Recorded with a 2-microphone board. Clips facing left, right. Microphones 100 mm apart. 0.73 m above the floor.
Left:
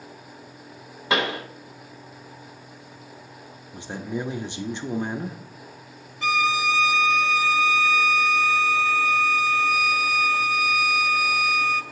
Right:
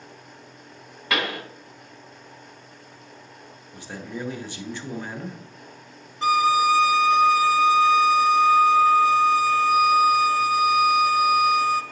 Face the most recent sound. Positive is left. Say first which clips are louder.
# right 5 dB
turn(degrees=-40)  # may be behind; listen again after turning